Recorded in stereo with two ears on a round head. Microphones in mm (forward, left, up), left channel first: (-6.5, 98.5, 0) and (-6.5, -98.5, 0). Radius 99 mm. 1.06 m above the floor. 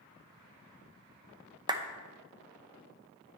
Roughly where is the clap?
Centre.